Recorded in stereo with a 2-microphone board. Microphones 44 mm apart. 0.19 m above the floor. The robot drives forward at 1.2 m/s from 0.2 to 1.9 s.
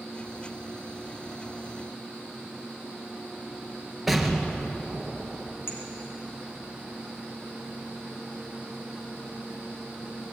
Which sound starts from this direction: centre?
An explosion, at 4.1 s.